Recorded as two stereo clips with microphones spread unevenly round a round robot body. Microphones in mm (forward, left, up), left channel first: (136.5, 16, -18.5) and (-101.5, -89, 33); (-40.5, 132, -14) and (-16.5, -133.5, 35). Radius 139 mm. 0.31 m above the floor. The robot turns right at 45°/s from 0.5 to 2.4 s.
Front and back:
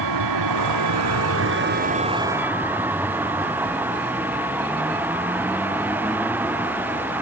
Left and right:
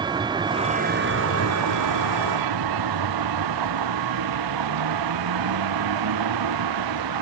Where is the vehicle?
160° right; by 7.2 s 75° right.